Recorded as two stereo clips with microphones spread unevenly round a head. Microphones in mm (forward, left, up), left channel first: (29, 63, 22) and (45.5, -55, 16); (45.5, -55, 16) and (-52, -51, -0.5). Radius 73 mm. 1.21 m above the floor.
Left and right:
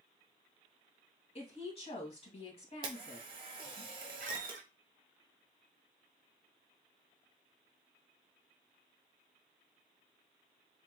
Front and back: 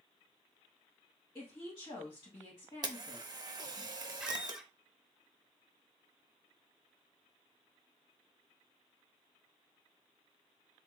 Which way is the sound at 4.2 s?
95° right.